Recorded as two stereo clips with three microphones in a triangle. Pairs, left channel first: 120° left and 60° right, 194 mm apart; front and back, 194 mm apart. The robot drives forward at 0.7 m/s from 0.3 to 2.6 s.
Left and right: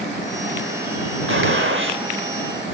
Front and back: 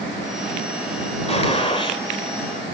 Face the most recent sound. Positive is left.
turn(degrees=-70)